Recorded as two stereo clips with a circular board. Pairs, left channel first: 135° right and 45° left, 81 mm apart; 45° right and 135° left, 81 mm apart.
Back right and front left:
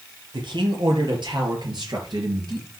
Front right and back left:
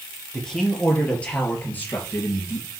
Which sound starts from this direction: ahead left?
A man speaking, at 0.3 s.